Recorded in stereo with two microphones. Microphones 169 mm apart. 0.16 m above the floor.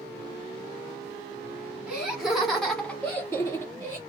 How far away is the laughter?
About 1.6 m.